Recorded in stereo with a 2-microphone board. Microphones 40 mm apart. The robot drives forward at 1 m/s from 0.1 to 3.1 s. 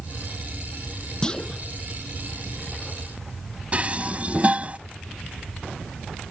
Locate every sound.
1.2 s a clunk: 15° left (ahead or behind); by 1.6 s 20° left (ahead or behind)
3.7 s dishes clattering: 35° right (ahead or behind)